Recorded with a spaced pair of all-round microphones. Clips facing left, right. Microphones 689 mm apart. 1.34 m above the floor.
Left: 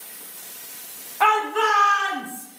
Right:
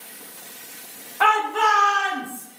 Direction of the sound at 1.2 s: 45° right (ahead or behind).